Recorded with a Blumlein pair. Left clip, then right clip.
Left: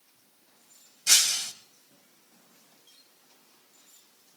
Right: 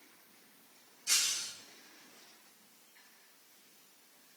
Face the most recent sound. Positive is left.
turn(degrees=55)